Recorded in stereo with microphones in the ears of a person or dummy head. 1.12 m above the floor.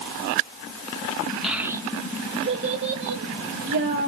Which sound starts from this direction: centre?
A child speaking, at 1.4 s.